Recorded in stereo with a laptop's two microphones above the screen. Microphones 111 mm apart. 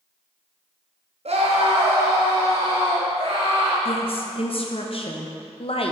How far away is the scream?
About 0.8 m.